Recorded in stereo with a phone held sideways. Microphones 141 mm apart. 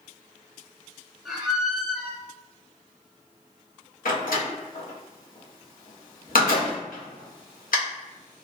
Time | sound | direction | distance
1.2 | a squeak | centre (ahead or behind) | 1.0 m
4.0 | a door slam | 85° left | 0.9 m